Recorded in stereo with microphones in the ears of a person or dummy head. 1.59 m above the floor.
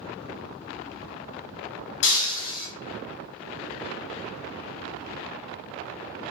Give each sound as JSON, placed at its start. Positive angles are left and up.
{"t": 2.0, "sound": "breaking glass", "side_deg": 55, "distance_m": 2.0}